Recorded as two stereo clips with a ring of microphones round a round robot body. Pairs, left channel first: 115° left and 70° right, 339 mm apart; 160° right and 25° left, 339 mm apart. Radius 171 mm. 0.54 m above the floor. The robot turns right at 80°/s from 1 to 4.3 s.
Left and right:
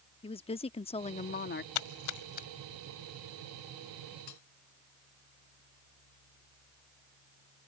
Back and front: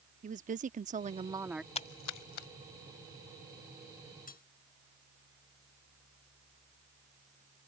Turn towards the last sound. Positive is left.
turn(degrees=135)